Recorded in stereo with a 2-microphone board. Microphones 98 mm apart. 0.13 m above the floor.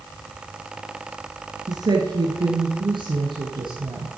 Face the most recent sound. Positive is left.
turn(degrees=-55)  # may be behind; listen again after turning